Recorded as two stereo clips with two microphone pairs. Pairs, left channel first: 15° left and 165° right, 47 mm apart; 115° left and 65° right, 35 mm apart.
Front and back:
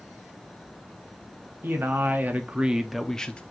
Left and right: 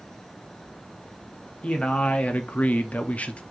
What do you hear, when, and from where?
1.6 s a man speaking: 165° left, 1.0 m; by 3.4 s 70° left, 0.6 m